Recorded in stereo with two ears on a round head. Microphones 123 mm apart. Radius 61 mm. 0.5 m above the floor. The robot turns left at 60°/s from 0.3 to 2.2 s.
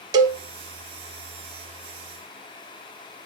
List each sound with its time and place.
0.1 s a cowbell: 30° right (ahead or behind), 0.7 m; by 0.4 s 35° right (ahead or behind), 0.7 m